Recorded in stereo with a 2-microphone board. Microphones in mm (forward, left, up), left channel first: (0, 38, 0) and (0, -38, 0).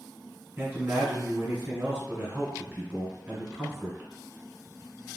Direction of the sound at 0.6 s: 25° right (ahead or behind).